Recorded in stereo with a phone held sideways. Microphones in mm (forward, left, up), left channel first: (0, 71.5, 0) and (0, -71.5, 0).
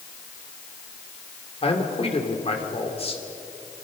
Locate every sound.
1.6 s a man speaking: 45° left (ahead or behind), 2.5 m